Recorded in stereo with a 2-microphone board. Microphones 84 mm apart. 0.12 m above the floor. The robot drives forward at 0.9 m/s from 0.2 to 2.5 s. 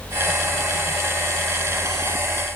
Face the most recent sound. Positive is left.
No sound to turn to.